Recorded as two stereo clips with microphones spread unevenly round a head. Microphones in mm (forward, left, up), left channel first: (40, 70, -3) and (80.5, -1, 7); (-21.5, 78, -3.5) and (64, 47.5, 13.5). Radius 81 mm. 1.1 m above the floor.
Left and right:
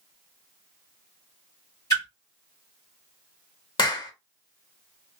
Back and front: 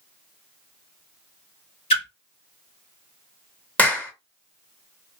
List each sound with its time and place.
1.9 s a splash: 175° right, 1.5 m
3.8 s a clap: 85° left, 1.1 m